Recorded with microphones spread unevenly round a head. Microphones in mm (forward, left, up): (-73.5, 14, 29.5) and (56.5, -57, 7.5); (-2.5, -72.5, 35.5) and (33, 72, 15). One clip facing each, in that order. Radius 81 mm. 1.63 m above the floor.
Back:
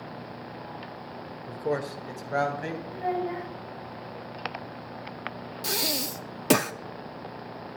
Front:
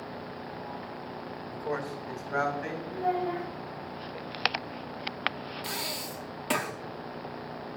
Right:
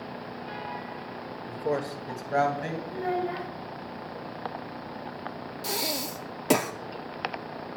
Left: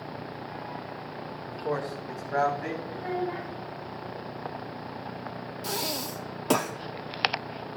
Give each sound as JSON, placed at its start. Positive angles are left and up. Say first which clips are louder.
{"t": 1.5, "sound": "a man speaking", "louder": "back 5 dB, right 2 dB", "azimuth_deg": -170, "distance_m": 0.9}
{"t": 2.9, "sound": "a child speaking", "louder": "front 1 dB, right 3 dB", "azimuth_deg": -130, "distance_m": 3.5}
{"t": 5.6, "sound": "breathing", "louder": "back 5 dB, right 1 dB", "azimuth_deg": 180, "distance_m": 0.5}